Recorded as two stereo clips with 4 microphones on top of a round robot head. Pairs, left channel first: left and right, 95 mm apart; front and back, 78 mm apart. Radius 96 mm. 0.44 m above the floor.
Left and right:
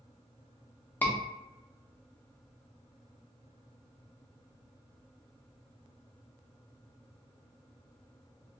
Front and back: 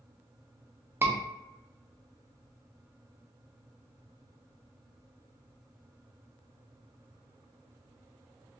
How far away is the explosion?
No explosion in this recording.